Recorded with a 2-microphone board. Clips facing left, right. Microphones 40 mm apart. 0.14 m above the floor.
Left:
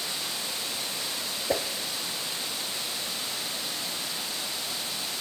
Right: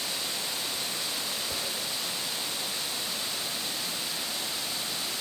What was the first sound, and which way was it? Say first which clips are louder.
A whoosh: left 7 dB; 65° left (ahead or behind).